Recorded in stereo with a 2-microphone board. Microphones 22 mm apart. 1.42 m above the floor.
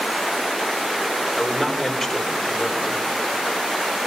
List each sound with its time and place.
1.4 s a man speaking: 5° right (ahead or behind), 3.5 m